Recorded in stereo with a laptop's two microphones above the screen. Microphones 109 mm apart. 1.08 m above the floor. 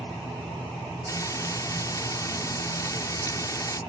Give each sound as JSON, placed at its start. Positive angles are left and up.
{"t": 1.1, "sound": "frying", "side_deg": 30}